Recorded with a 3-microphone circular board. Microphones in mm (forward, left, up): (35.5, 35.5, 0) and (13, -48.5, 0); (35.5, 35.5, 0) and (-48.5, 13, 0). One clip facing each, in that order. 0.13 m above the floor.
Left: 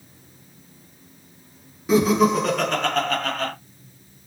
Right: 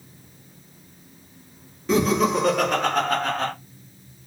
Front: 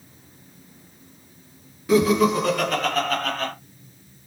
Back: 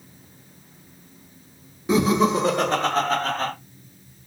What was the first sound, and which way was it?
Laughter, 145° left.